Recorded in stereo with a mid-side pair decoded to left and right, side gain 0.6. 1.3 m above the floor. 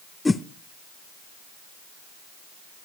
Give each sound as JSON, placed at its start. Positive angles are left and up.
{"t": 0.2, "sound": "a whoosh", "azimuth_deg": 15, "distance_m": 0.7}